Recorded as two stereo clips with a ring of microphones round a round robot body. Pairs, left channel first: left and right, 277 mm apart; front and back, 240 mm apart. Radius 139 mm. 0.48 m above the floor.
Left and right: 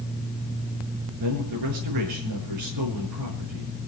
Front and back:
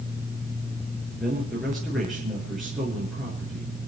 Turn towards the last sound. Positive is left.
turn(degrees=-90)